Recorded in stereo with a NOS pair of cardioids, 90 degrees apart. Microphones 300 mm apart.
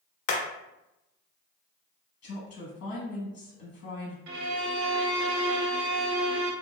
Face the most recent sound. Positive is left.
turn(degrees=-65)